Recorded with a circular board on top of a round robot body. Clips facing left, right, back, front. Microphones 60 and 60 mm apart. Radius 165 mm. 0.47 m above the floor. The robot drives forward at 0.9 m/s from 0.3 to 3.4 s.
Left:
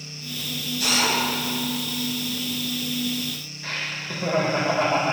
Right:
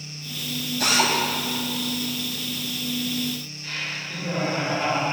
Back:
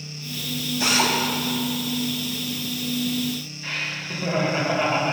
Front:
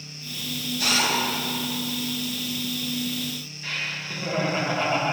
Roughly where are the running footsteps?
No running footsteps in this recording.